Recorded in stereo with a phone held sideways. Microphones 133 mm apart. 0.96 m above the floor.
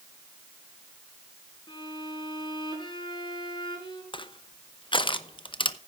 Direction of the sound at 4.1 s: 40° left (ahead or behind).